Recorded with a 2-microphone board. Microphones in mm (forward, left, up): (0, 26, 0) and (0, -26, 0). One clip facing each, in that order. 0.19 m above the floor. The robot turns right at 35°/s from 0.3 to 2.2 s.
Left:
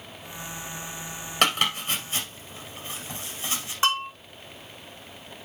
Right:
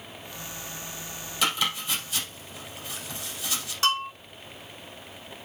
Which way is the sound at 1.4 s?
60° left (ahead or behind).